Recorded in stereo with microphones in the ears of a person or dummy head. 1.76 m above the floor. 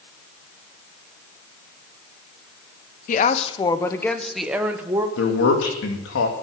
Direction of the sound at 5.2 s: 75° left (ahead or behind).